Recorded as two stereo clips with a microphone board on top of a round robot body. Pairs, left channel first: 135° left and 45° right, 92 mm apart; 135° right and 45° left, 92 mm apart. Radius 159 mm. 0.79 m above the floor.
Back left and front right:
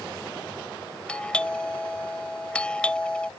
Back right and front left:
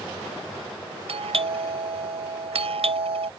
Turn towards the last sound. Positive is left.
turn(degrees=55)